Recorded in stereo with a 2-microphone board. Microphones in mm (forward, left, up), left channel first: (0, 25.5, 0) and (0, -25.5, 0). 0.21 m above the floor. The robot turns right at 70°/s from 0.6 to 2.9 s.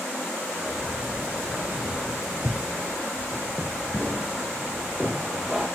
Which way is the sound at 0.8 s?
20° right (ahead or behind).